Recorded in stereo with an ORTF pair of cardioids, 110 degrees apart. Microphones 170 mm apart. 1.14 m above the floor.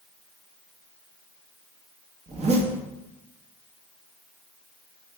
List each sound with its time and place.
2.3 s a zipper: 40° right, 1.1 m